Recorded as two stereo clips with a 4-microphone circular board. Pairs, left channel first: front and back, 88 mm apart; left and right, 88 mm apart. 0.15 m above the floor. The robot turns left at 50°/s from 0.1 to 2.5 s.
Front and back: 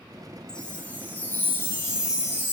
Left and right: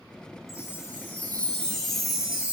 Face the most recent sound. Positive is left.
turn(degrees=-25)